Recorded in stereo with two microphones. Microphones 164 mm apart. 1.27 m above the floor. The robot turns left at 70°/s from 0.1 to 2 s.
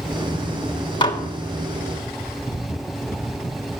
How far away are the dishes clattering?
About 1.3 m.